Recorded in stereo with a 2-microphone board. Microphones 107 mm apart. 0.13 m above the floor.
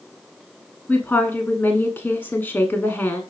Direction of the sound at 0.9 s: 20° left (ahead or behind).